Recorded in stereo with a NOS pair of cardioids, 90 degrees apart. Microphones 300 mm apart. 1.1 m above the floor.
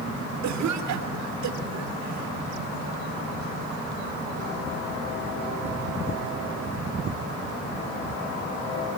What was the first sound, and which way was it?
A cough, 65° right.